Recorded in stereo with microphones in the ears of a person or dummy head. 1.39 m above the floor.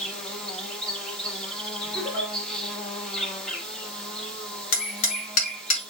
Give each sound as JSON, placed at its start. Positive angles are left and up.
{"t": 0.0, "sound": "an insect", "side_deg": 5, "distance_m": 1.1}
{"t": 1.9, "sound": "a giggle", "side_deg": 5, "distance_m": 1.8}
{"t": 4.7, "sound": "hammering", "side_deg": 55, "distance_m": 1.3}